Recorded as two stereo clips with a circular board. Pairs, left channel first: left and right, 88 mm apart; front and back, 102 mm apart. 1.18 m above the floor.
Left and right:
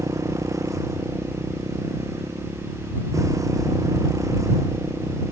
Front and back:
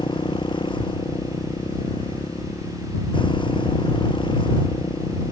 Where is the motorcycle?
40° right.